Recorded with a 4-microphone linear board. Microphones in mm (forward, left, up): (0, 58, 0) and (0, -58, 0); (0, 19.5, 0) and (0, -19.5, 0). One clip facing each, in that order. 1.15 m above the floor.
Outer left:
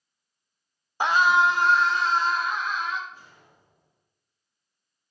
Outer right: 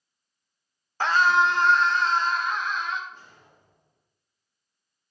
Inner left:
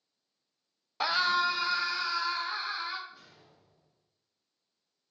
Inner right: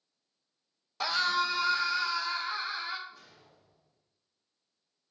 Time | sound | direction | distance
1.0 | a scream | 15° left (ahead or behind) | 0.7 m
3.1 | a whoosh | 10° left (ahead or behind) | 2.5 m